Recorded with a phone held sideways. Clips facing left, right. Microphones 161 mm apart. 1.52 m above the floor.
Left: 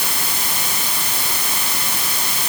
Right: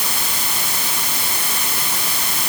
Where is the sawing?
I don't hear sawing.